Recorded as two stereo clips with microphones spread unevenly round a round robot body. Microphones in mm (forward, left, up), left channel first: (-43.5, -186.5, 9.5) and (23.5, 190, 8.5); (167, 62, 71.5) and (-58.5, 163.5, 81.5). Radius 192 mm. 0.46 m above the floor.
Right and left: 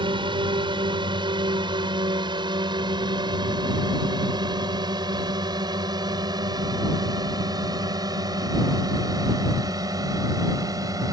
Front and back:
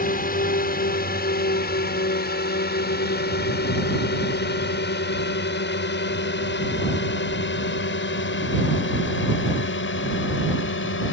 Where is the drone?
5° left; by 11.1 s straight ahead.